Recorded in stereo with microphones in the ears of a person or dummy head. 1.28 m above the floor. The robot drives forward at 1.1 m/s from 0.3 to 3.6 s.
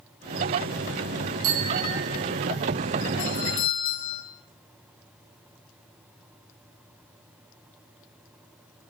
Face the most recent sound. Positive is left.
turn(degrees=30)  # may be behind; listen again after turning